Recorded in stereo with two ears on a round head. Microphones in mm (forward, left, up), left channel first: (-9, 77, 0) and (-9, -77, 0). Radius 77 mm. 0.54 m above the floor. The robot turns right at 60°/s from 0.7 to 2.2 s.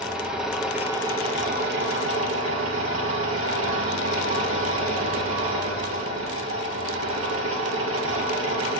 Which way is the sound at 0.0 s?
175° right.